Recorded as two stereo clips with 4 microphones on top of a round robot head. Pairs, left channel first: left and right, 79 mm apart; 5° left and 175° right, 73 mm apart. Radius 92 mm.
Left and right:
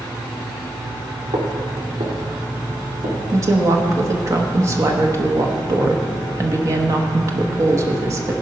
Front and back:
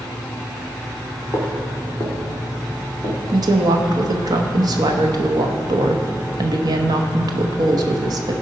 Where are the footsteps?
90° right, 2.5 m; by 3.2 s 95° right, 4 m.